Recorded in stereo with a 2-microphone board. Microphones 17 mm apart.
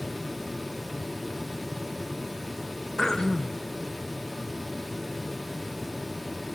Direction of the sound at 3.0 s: 40° left (ahead or behind).